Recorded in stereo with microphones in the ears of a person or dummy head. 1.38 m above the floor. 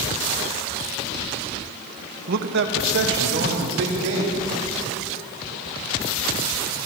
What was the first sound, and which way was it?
A man speaking, 50° right (ahead or behind).